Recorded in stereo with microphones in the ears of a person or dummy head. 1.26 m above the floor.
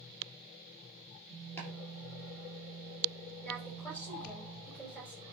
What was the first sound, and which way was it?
Chopping, 15° left (ahead or behind).